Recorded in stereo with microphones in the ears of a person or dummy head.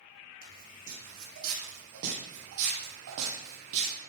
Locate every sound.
0.4 s footsteps: 65° right (ahead or behind), 4.5 m